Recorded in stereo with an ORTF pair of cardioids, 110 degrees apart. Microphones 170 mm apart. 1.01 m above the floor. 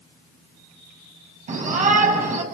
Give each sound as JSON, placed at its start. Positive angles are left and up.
{"t": 1.5, "sound": "a shout", "azimuth_deg": -45, "distance_m": 8.0}